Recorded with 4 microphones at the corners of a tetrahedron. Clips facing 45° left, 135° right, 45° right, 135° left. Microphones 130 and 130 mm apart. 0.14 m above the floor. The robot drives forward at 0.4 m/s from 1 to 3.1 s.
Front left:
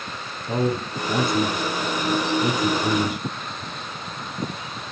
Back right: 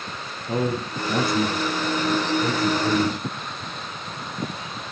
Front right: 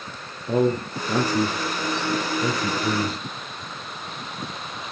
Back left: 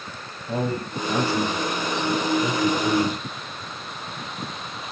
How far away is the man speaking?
About 2.5 m.